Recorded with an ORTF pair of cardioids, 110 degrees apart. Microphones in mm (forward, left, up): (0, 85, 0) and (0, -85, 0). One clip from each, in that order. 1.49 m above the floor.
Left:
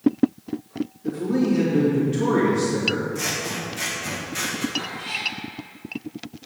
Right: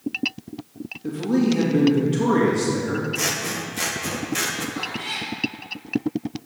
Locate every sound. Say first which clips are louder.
1.0 s a man speaking: right 1 dB; 35° right, 3 m
3.1 s scissors: right 2 dB; 30° right, 1.3 m
4.8 s a cat meowing: even; 25° right, 2.5 m